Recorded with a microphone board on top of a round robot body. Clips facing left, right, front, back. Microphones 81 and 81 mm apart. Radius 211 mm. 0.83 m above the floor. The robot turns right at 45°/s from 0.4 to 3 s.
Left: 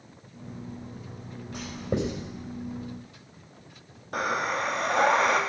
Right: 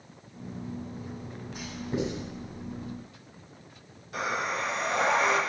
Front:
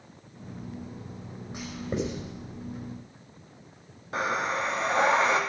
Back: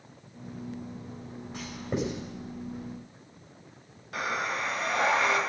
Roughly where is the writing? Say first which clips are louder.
Left 2 dB, front 1 dB; left.